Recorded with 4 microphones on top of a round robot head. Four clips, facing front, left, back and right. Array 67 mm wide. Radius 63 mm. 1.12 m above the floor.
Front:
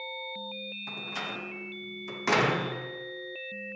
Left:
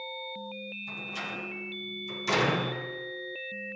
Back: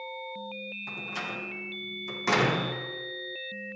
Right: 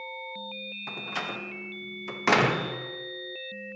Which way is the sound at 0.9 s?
90° right.